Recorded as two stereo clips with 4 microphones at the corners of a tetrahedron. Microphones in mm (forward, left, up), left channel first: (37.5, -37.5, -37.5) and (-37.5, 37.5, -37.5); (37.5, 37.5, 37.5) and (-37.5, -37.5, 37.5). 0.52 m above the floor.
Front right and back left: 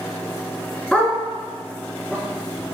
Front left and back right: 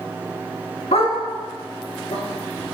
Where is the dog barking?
35° left, 2 m; by 2.7 s 25° left, 3.5 m.